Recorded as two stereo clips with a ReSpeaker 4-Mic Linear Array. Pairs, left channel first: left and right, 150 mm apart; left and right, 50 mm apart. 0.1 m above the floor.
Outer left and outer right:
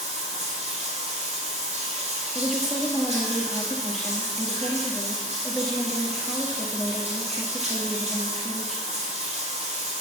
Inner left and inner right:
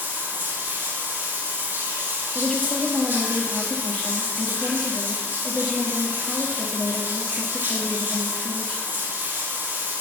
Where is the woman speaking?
Centre (ahead or behind), 1.6 m.